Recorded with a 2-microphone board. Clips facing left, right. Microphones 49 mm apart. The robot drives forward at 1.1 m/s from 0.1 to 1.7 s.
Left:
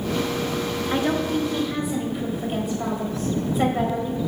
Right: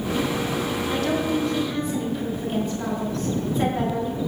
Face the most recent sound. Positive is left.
turn(degrees=10)  # may be behind; listen again after turning